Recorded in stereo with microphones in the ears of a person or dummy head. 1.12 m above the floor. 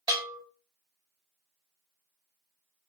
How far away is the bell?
About 1.1 m.